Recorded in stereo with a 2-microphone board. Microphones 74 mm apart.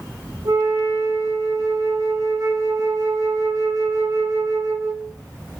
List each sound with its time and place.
0.5 s a flute: 60° right (ahead or behind), 5 m